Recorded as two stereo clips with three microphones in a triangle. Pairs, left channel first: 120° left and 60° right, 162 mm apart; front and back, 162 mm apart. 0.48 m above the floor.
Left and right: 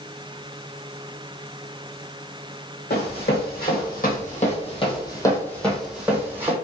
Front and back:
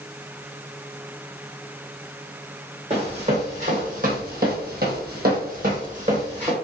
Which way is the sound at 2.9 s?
130° left.